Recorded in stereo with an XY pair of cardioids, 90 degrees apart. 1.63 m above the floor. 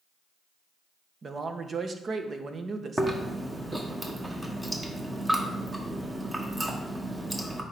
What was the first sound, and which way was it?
A man speaking, 45° right.